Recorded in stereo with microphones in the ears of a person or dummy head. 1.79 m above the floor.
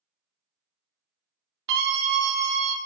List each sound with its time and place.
1.7 s a scream: 65° right (ahead or behind), 0.6 m; by 2.8 s 55° right (ahead or behind), 1.2 m